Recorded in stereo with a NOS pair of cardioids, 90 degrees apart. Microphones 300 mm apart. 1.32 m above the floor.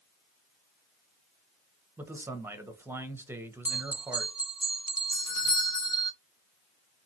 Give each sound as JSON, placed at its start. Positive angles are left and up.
{"t": 2.0, "sound": "a man speaking", "azimuth_deg": -10, "distance_m": 0.7}
{"t": 3.6, "sound": "a bell", "azimuth_deg": -5, "distance_m": 0.5}
{"t": 5.1, "sound": "a doorbell", "azimuth_deg": 60, "distance_m": 0.8}